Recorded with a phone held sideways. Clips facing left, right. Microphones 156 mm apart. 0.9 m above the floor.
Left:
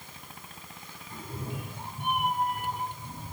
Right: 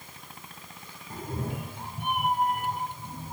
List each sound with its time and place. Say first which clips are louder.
1.1 s a cat meowing: right 4 dB; 40° right (ahead or behind), 0.6 m; by 3.3 s 50° right (ahead or behind), 3 m